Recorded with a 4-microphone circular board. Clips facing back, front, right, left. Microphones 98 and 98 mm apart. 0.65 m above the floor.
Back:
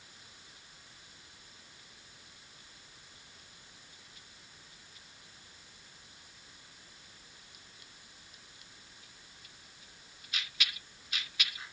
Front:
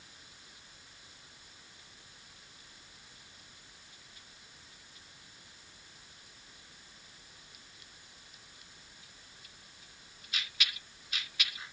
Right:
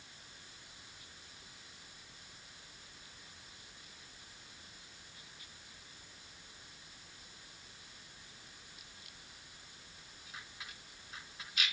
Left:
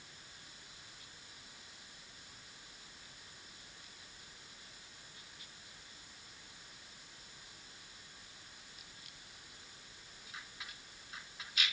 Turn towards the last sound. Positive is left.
No sound to turn to.